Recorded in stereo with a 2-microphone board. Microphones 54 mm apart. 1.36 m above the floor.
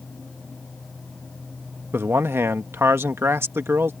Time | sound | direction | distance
1.9 | a man speaking | 50° right (ahead or behind) | ?